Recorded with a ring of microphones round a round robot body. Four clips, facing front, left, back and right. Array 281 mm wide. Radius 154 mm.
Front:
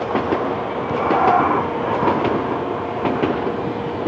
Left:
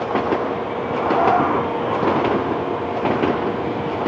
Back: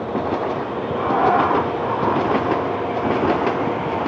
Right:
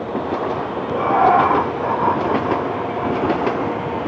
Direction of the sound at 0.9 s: 85° right.